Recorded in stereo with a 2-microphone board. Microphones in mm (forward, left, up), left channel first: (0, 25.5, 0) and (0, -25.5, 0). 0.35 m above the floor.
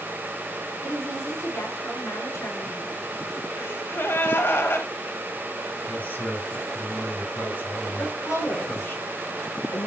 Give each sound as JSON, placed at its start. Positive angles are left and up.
{"t": 0.8, "sound": "a woman speaking", "side_deg": 70, "distance_m": 5.5}
{"t": 3.6, "sound": "a gasp", "side_deg": 55, "distance_m": 1.6}
{"t": 5.9, "sound": "a man speaking", "side_deg": 40, "distance_m": 4.0}
{"t": 8.0, "sound": "a woman speaking", "side_deg": 75, "distance_m": 5.0}